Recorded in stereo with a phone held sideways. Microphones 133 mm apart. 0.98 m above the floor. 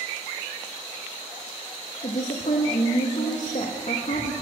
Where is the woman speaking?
70° left (ahead or behind), 1.0 m.